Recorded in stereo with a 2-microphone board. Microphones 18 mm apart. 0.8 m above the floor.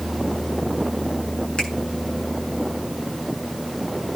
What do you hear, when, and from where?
1.6 s a finger snap: 60° left (ahead or behind), 8 m